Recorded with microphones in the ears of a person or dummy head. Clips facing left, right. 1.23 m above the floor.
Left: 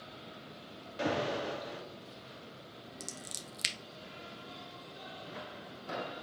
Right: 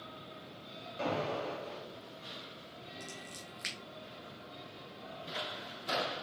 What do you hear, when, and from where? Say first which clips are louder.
1.0 s an alarm: left 2 dB; 15° left (ahead or behind), 0.6 m
3.0 s scissors: even; 50° left (ahead or behind), 0.7 m